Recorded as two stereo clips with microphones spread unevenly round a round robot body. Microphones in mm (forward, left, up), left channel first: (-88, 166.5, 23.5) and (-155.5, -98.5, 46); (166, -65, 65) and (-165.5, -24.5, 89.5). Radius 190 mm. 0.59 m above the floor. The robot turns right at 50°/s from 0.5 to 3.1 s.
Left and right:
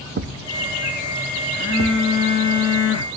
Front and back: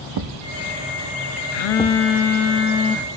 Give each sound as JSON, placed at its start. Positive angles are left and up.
{"t": 0.2, "sound": "a thud", "azimuth_deg": -160, "distance_m": 0.8}
{"t": 1.5, "sound": "a phone buzzing", "azimuth_deg": 0, "distance_m": 0.7}